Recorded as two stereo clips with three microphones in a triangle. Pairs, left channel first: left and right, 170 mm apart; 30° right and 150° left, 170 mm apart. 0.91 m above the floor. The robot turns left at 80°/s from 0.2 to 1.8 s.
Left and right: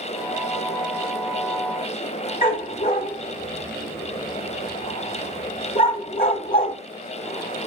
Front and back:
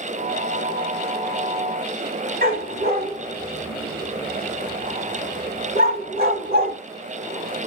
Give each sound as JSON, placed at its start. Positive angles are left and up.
{"t": 2.4, "sound": "a dog barking", "azimuth_deg": 120, "distance_m": 1.4}